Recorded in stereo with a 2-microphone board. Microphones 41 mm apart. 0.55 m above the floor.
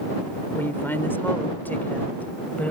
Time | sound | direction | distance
0.5 | a woman speaking | 60° left (ahead or behind) | ?